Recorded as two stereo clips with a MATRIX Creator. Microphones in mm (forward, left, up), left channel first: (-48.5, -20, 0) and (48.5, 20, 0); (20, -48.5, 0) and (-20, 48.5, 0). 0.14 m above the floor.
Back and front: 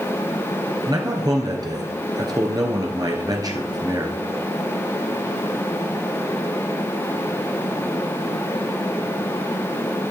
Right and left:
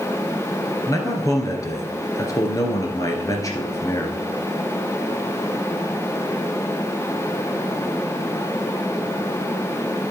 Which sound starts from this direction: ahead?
A man speaking, at 0.9 s.